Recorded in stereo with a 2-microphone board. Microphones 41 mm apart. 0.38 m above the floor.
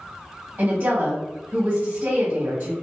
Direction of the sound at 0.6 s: 50° right (ahead or behind).